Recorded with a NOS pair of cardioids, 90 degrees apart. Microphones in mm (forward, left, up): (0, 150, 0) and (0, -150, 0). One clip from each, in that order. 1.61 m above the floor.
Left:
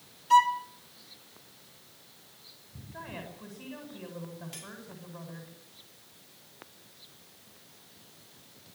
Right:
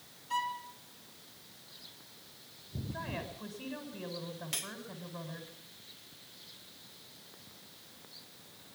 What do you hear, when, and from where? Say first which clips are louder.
0.3 s a violin: left 14 dB; 60° left, 2 m
2.9 s a woman speaking: right 1 dB; 15° right, 9.5 m
4.5 s cutlery clinking: right 6 dB; 60° right, 2.5 m